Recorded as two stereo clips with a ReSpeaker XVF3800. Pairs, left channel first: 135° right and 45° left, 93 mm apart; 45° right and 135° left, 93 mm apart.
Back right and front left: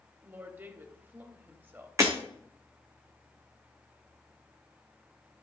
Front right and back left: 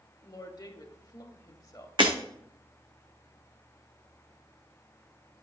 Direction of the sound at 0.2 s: 15° right.